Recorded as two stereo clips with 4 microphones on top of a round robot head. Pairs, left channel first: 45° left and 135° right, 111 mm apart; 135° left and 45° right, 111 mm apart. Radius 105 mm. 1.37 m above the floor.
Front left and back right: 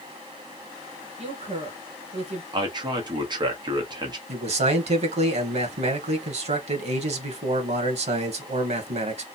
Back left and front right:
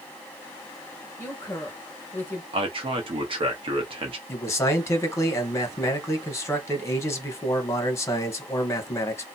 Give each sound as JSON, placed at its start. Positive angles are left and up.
{"t": 1.2, "sound": "a woman speaking", "azimuth_deg": -155, "distance_m": 1.7}
{"t": 2.5, "sound": "a man speaking", "azimuth_deg": -85, "distance_m": 1.0}
{"t": 4.3, "sound": "a man speaking", "azimuth_deg": -160, "distance_m": 1.1}